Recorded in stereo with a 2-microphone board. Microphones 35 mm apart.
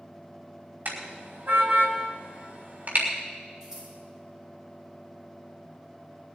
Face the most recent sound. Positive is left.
turn(degrees=-20)  # may be behind; listen again after turning